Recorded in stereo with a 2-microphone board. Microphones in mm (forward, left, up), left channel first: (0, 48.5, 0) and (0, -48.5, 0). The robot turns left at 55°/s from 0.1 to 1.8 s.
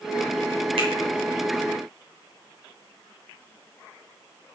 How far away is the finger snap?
About 2 m.